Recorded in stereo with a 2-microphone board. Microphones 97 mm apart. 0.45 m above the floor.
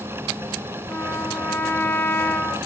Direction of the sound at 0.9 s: 25° left (ahead or behind).